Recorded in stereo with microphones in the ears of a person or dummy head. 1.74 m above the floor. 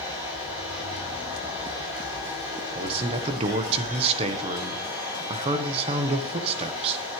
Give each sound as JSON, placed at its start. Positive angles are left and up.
{"t": 0.0, "sound": "a machine running", "side_deg": -15, "distance_m": 7.5}
{"t": 2.8, "sound": "a man speaking", "side_deg": -35, "distance_m": 1.1}